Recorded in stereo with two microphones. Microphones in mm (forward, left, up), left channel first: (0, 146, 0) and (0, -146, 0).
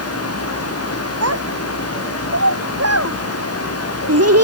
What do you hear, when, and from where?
1.2 s a child speaking: 55° right (ahead or behind)